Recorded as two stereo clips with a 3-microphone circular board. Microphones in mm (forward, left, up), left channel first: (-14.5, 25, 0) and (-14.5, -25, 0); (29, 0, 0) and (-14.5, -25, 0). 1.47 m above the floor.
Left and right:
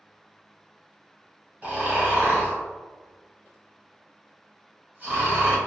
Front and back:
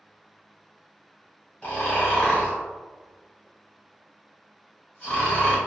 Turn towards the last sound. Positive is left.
turn(degrees=-30)